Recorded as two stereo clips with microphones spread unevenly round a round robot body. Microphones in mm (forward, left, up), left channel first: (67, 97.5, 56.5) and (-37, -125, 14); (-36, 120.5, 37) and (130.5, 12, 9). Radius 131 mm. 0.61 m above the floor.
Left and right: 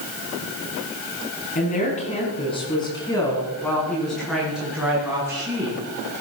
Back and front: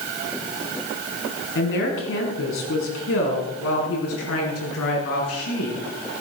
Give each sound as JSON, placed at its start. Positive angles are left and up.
{"t": 1.6, "sound": "a woman speaking", "azimuth_deg": 125, "distance_m": 6.5}